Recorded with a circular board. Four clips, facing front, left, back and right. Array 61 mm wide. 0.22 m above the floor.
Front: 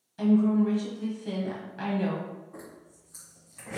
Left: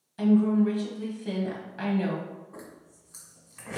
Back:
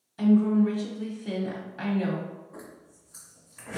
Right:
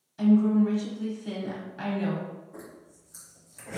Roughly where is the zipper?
Left.